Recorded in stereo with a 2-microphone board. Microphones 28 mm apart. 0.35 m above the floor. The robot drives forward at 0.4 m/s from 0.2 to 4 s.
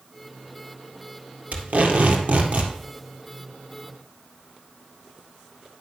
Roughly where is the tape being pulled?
Right.